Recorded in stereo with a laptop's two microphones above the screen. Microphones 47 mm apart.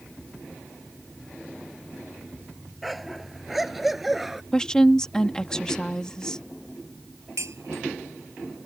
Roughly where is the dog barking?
Centre.